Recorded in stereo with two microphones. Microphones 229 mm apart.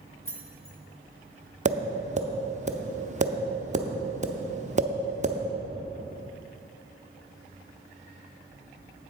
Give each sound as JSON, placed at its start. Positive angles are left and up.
{"t": 0.2, "sound": "keys jangling", "side_deg": 65, "distance_m": 1.0}
{"t": 1.6, "sound": "tapping", "side_deg": -30, "distance_m": 0.6}